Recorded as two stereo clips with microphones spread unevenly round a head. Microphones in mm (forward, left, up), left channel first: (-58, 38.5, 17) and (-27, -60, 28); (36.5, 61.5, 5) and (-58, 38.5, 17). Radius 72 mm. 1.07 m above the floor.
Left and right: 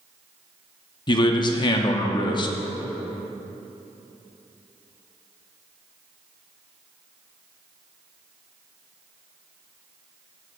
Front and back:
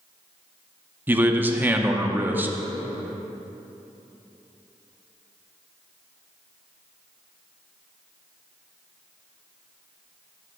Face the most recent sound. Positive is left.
turn(degrees=120)